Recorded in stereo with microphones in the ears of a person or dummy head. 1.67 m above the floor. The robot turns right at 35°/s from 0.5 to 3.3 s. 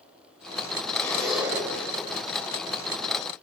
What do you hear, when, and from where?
0.9 s a zipper: 15° left (ahead or behind), 8 m; by 1.7 s 15° right (ahead or behind), 8 m